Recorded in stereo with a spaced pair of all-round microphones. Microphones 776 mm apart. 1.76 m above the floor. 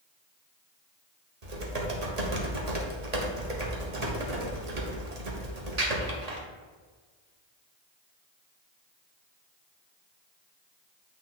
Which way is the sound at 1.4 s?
55° right (ahead or behind).